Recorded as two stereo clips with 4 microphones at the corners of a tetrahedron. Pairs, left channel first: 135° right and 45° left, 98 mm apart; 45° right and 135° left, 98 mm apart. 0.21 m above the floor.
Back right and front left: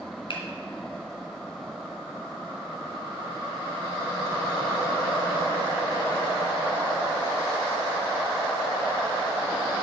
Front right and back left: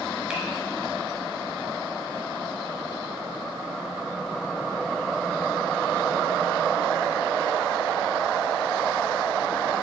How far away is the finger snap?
About 2.5 m.